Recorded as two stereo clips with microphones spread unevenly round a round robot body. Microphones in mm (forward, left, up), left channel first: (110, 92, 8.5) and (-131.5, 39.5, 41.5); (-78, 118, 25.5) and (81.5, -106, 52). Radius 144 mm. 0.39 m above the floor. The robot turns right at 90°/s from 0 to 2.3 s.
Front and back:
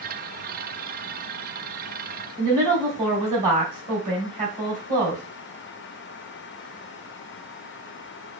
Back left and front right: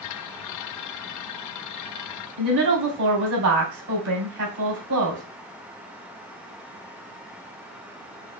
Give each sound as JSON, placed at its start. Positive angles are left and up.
{"t": 2.4, "sound": "a woman speaking", "azimuth_deg": -105, "distance_m": 3.0}